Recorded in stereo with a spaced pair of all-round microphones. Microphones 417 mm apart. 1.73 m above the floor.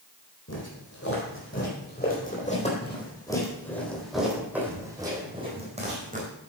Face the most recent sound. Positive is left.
turn(degrees=-20)  # may be behind; listen again after turning